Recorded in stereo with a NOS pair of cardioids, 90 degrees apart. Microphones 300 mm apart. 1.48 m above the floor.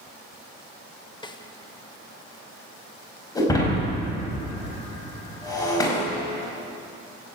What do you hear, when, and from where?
1.2 s a snare drum: 15° left, 1.2 m
3.4 s breaking glass: 10° left, 5 m